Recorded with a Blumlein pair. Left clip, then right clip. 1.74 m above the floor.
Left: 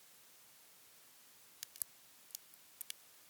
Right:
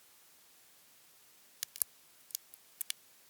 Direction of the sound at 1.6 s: 65° right.